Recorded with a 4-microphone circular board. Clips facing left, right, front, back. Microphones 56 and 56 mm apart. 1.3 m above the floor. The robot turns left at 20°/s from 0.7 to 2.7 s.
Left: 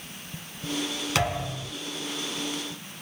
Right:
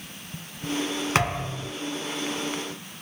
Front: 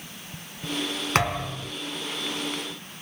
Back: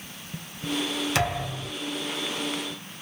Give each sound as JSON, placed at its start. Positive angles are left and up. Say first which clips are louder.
{"t": 1.1, "sound": "a thud", "louder": "right 1 dB, front 5 dB", "azimuth_deg": -40, "distance_m": 1.3}